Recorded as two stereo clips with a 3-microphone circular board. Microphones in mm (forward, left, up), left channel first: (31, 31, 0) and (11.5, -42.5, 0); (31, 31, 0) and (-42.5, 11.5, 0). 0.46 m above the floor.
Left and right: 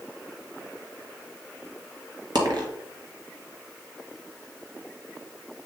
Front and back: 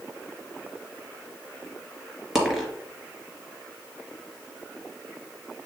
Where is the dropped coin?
85° right, 2.0 m.